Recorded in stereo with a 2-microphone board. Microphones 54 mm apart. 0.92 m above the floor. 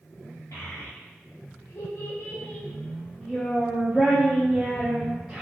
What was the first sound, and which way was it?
A child speaking, 75° left (ahead or behind).